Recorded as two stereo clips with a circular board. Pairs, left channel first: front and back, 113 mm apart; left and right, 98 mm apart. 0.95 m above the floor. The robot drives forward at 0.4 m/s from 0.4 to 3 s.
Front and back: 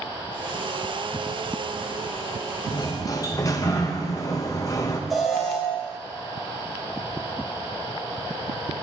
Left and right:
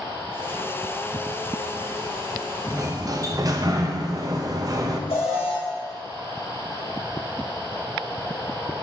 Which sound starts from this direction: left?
An alarm, at 5.1 s.